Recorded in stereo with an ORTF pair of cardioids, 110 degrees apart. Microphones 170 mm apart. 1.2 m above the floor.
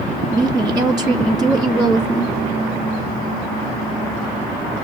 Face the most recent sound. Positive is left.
turn(degrees=-5)